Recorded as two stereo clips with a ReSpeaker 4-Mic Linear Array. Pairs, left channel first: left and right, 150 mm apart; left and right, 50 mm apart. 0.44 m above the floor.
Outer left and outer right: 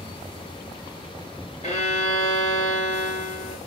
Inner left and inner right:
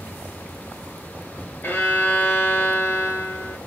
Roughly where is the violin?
Left.